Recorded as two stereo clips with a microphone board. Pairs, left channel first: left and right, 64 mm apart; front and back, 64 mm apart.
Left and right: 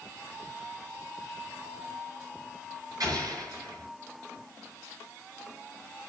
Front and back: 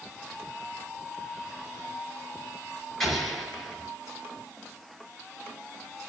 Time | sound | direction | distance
3.0 | an explosion | 85° right | 5 m